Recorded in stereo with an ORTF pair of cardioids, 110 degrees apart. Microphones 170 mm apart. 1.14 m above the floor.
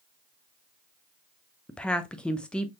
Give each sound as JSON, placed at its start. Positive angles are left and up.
{"t": 1.7, "sound": "a woman speaking", "azimuth_deg": 5, "distance_m": 0.7}